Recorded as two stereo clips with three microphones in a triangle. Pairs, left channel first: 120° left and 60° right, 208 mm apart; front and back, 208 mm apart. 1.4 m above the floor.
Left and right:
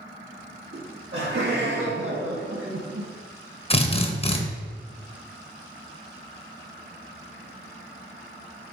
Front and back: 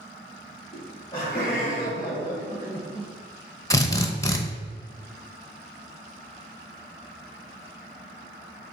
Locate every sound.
0.7 s laughter: 55° right, 2 m; by 3.1 s 80° right, 0.8 m
3.7 s a drill: 70° left, 0.7 m